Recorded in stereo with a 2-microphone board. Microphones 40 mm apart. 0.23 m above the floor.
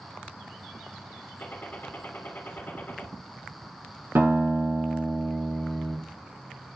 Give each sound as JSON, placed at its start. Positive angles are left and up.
{"t": 1.4, "sound": "a gunshot", "side_deg": 50, "distance_m": 2.5}
{"t": 4.2, "sound": "a guitar", "side_deg": -80, "distance_m": 5.0}